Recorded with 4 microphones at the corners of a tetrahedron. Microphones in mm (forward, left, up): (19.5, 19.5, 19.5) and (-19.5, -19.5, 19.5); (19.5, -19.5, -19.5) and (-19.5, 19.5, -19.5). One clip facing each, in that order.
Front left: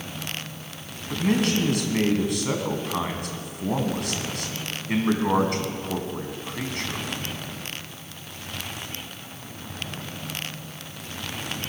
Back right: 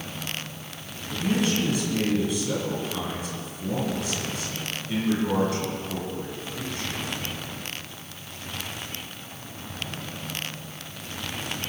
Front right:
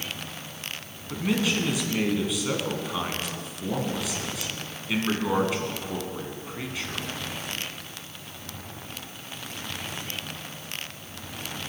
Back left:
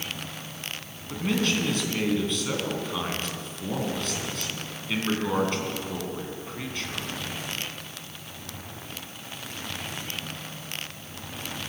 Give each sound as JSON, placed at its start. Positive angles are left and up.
{"t": 1.1, "sound": "a man speaking", "azimuth_deg": 35, "distance_m": 2.5}